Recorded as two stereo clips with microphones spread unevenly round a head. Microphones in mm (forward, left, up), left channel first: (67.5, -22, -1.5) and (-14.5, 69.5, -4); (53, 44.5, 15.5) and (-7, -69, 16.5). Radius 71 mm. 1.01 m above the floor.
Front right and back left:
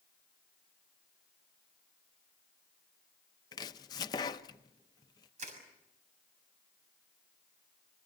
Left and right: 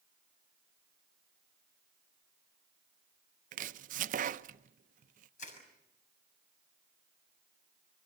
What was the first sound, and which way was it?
Chopping, 110° right.